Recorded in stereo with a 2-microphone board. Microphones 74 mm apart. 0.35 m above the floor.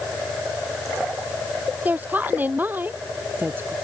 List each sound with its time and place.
1.9 s a woman speaking: 25° right (ahead or behind); by 3.8 s 30° right (ahead or behind)